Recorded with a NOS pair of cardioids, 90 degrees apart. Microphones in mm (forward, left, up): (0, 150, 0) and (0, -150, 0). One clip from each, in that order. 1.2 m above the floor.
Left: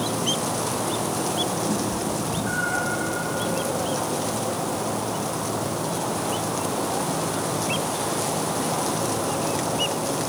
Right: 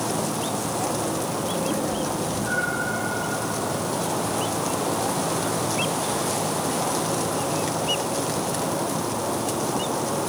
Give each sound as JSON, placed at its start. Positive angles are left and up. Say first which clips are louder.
{"t": 1.7, "sound": "a cat meowing", "louder": "right 1 dB", "azimuth_deg": 40, "distance_m": 8.5}